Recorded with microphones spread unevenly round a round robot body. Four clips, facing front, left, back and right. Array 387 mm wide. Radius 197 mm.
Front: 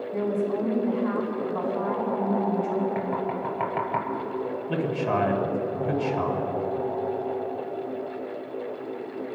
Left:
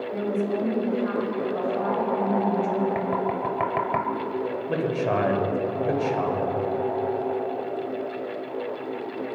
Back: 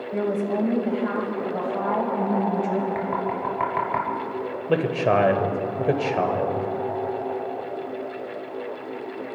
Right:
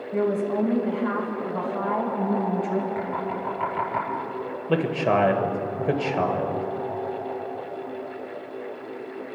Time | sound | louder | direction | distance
0.1 | a woman speaking | right 3 dB, back 2 dB | 160° right | 3.5 m
3.0 | knocking | left 3 dB, back 2 dB | 100° left | 1.6 m
4.7 | a man speaking | right 4 dB, back 6 dB | 155° right | 1.9 m